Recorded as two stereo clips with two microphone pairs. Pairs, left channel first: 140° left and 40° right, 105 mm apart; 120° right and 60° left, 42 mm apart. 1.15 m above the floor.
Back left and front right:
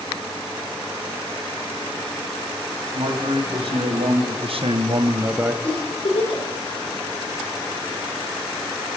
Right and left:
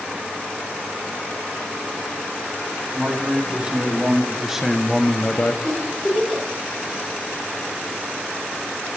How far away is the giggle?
About 4 m.